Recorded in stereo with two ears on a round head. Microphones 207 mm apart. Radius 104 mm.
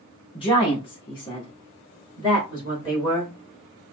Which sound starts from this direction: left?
A woman speaking, at 0.3 s.